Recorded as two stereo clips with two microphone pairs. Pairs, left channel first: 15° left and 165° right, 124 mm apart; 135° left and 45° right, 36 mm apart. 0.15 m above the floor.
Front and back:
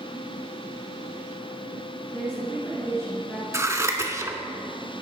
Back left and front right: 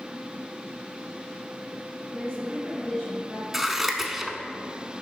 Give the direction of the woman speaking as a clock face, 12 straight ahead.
9 o'clock.